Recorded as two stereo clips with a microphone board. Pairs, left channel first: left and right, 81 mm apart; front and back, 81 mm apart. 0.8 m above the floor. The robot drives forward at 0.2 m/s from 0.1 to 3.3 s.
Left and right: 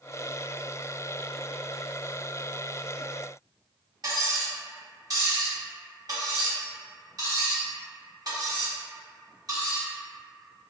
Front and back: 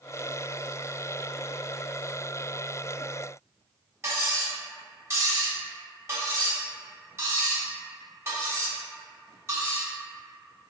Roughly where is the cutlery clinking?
Behind right.